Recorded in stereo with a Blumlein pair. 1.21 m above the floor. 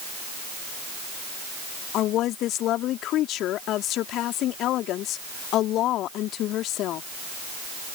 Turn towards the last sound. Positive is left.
turn(degrees=35)